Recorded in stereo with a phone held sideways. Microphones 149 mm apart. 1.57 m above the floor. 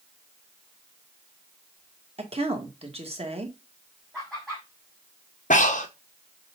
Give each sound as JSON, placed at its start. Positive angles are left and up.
{"t": 2.2, "sound": "a woman speaking", "side_deg": -40, "distance_m": 1.9}
{"t": 4.1, "sound": "laughter", "side_deg": 0, "distance_m": 3.0}
{"t": 5.5, "sound": "breathing", "side_deg": 55, "distance_m": 1.1}